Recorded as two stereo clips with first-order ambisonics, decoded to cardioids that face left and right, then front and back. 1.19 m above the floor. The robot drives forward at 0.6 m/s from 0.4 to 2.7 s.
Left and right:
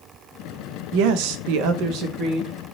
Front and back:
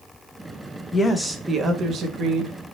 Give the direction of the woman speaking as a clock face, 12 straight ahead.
2 o'clock.